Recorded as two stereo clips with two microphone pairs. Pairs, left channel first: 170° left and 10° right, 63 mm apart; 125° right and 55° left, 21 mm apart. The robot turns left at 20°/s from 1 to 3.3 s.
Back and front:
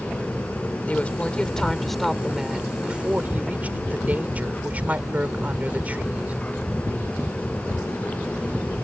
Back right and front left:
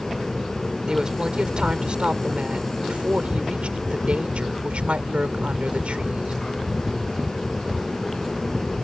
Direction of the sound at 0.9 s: 100° left.